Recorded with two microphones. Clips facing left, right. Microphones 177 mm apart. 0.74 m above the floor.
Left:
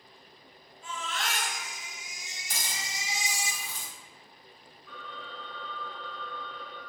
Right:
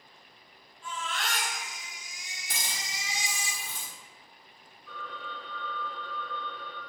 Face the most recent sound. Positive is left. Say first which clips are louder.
# right 2 dB
turn(degrees=-75)  # may be behind; listen again after turning